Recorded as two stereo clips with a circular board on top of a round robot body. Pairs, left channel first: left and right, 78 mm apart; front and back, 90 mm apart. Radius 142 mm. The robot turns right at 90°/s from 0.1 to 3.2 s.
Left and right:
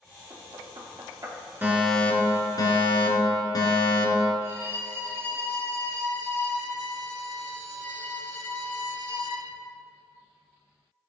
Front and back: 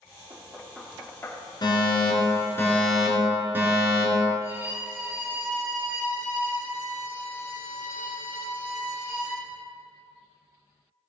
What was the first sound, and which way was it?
Knocking, 140° right.